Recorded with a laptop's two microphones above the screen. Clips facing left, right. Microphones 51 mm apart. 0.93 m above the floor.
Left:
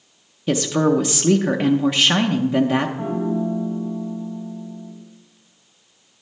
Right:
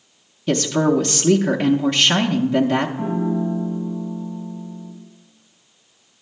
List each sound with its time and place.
0.5 s a woman speaking: 5° left (ahead or behind), 0.6 m
3.0 s a piano: 15° left (ahead or behind), 2.5 m